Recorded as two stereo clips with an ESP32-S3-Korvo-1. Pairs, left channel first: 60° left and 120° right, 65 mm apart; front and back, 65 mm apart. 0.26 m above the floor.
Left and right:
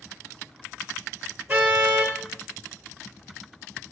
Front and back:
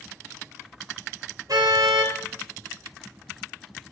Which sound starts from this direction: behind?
A car horn, at 1.5 s.